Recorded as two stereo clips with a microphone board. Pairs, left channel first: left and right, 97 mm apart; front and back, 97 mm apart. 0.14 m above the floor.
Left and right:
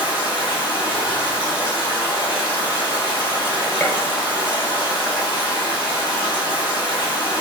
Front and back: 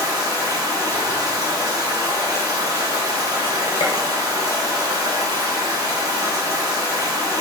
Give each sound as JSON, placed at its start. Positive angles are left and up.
{"t": 0.0, "sound": "running water", "azimuth_deg": 125, "distance_m": 1.9}
{"t": 3.8, "sound": "a gunshot", "azimuth_deg": 20, "distance_m": 1.0}